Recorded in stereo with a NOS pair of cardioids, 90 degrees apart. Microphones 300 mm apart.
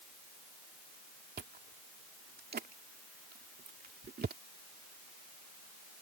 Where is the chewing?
35° right.